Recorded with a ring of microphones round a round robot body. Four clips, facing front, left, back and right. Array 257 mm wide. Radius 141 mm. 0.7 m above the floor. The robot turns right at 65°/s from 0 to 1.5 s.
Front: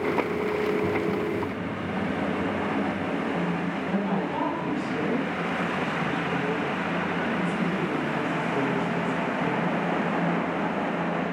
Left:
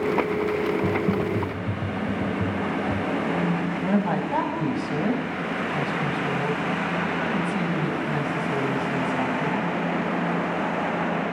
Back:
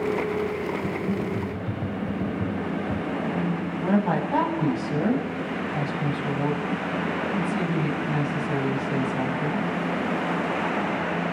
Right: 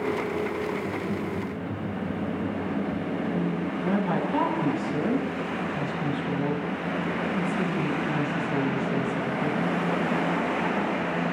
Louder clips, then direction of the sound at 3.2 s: Left 3 dB, back 1 dB; 135° left.